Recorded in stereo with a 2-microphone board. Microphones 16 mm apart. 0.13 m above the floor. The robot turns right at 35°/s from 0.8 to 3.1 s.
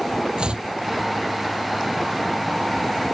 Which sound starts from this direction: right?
Chopping, at 0.4 s.